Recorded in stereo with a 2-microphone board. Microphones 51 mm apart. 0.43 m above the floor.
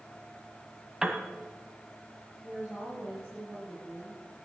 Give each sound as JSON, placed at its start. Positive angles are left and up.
{"t": 1.0, "sound": "a piano", "side_deg": -20, "distance_m": 1.3}
{"t": 2.4, "sound": "a woman speaking", "side_deg": -25, "distance_m": 8.5}